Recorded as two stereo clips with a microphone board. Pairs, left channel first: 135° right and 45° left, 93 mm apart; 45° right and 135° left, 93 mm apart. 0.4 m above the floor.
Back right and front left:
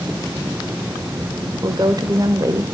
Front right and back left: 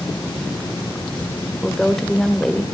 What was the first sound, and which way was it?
A woman speaking, 35° left.